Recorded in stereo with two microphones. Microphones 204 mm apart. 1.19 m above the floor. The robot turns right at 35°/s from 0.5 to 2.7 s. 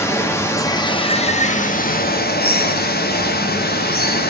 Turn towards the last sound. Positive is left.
turn(degrees=95)